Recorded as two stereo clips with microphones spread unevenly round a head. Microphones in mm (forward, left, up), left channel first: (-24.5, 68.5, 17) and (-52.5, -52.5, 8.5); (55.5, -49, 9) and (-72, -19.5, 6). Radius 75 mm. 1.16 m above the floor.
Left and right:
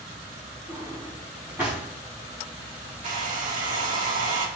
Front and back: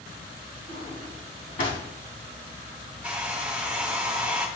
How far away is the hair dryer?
About 1.8 m.